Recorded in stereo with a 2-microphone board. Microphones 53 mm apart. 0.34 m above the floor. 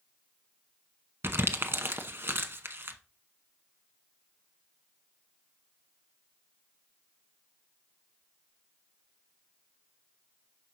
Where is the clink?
No clink in this recording.